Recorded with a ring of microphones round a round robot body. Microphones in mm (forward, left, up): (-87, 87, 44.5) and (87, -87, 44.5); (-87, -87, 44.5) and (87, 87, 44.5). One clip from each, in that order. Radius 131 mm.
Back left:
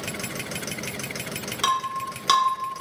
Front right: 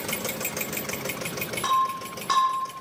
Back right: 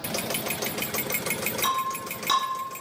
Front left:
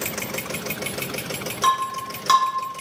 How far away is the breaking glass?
About 1.6 m.